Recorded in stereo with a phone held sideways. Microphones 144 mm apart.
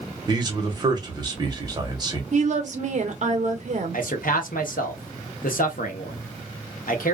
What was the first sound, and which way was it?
A man speaking, 30° right (ahead or behind).